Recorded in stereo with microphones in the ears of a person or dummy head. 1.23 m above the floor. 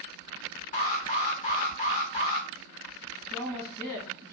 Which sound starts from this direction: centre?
A woman speaking, at 3.3 s.